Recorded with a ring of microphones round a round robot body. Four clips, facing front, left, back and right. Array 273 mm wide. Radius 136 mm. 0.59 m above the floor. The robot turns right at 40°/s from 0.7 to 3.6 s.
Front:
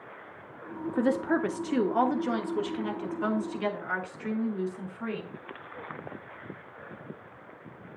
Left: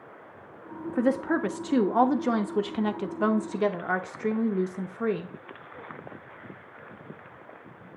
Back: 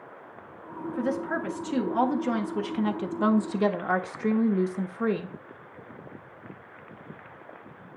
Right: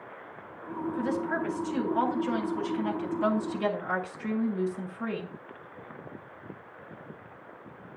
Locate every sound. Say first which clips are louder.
0.9 s a woman speaking: left 6 dB, front 3 dB; 40° left, 1.1 m; by 5.3 s 145° left, 1.1 m